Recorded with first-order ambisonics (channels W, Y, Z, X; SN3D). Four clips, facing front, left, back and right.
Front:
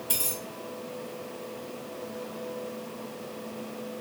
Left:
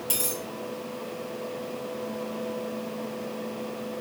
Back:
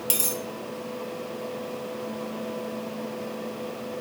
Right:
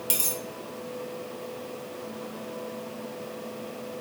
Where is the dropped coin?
160° right, 1.0 m.